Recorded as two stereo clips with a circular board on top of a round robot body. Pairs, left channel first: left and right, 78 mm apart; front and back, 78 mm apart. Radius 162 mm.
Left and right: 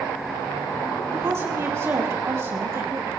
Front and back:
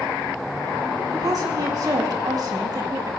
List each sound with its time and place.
1.1 s a woman speaking: 145° right, 3.5 m